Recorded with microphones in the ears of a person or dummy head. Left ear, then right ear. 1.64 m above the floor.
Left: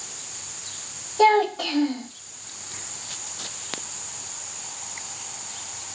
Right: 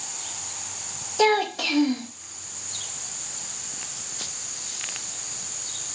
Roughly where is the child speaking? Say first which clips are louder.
Left 3 dB; right.